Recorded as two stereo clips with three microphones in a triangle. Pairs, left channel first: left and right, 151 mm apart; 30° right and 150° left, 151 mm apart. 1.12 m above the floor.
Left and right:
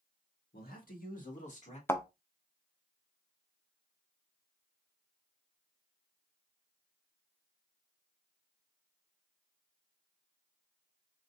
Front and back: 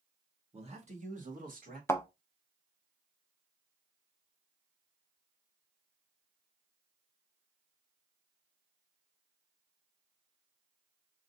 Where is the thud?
25° left, 0.6 m.